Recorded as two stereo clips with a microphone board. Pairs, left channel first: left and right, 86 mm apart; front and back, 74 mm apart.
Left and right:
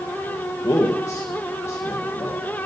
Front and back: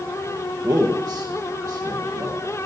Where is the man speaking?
145° left, 1.3 m.